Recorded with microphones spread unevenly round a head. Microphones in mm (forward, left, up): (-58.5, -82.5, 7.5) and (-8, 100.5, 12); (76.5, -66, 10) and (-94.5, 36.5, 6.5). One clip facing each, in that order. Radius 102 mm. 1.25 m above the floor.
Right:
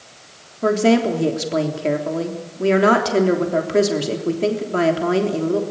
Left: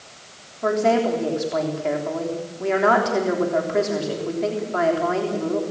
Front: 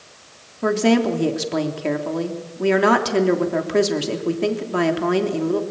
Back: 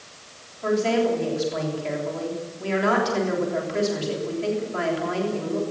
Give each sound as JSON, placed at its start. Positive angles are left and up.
{"t": 0.6, "sound": "a woman speaking", "azimuth_deg": -50, "distance_m": 3.5}